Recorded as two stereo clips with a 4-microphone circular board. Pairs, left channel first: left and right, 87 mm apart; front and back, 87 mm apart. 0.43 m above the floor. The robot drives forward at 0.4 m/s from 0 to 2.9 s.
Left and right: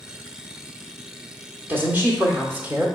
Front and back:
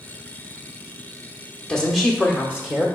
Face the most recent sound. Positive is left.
turn(degrees=-130)